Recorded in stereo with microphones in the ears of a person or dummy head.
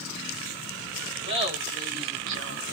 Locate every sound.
1.2 s laughter: 30° right (ahead or behind), 2 m; by 2.8 s 55° right (ahead or behind), 1.1 m